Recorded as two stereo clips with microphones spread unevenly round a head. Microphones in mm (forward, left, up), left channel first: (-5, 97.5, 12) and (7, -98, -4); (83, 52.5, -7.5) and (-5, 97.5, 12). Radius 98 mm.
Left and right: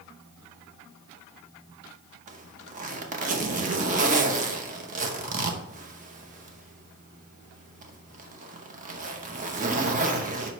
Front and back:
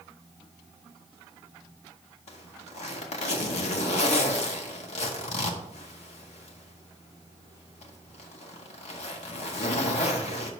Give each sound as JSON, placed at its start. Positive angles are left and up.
{"t": 2.3, "sound": "a zipper", "azimuth_deg": -35, "distance_m": 0.9}